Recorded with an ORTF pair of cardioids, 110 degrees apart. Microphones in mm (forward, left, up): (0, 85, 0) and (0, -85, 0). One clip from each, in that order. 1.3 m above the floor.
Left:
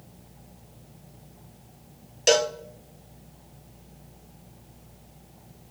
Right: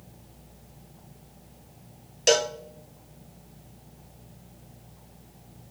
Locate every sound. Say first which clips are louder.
2.3 s a cowbell: left 1 dB; 5° left, 1.1 m